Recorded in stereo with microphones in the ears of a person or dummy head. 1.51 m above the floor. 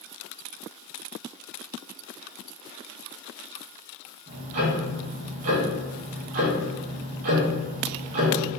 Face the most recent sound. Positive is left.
turn(degrees=-45)  # may be behind; listen again after turning